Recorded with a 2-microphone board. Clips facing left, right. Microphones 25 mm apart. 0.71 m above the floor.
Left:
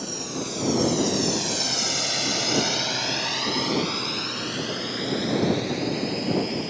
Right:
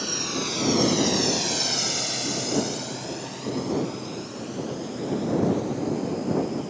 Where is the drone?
35° right (ahead or behind); by 6.7 s 75° left (ahead or behind).